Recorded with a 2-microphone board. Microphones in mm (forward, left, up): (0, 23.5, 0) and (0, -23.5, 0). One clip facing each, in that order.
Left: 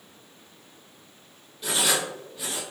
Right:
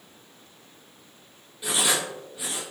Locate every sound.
1.6 s writing: 10° right (ahead or behind), 1.0 m